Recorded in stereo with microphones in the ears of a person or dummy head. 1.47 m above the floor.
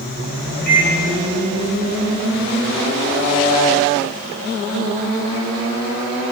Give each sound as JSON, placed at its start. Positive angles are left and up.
{"t": 0.7, "sound": "a microwave", "side_deg": 60, "distance_m": 6.5}